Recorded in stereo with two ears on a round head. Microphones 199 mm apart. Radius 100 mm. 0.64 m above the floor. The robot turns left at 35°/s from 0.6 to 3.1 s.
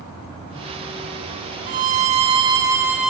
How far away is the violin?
About 1.4 m.